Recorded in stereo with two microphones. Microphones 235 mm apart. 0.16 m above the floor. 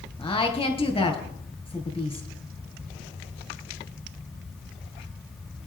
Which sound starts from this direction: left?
A woman speaking, at 0.2 s.